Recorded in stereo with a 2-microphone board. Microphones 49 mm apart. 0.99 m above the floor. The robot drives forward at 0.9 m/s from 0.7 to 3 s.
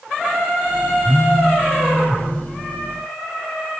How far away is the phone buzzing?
About 0.5 m.